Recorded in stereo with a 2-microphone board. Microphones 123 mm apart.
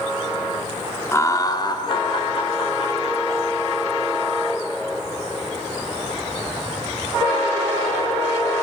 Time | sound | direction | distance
1.1 | laughter | 20° left (ahead or behind) | 0.9 m